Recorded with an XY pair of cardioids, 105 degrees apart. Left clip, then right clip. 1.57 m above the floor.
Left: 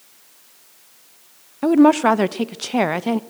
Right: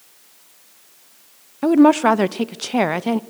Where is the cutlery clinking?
No cutlery clinking in this recording.